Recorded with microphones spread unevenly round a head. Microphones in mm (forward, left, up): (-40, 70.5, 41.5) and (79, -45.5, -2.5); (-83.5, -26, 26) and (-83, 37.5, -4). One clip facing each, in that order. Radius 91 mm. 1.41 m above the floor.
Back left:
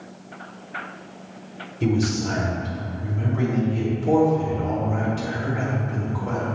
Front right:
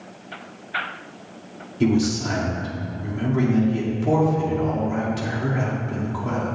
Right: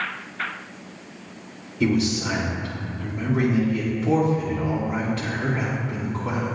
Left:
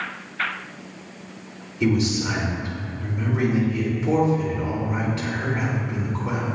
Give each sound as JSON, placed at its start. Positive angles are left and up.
{"t": 1.8, "sound": "a man speaking", "azimuth_deg": -40, "distance_m": 3.0}